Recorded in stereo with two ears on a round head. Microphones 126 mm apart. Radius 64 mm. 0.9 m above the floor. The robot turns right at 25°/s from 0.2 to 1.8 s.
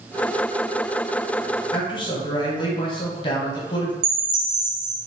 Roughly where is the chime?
Right.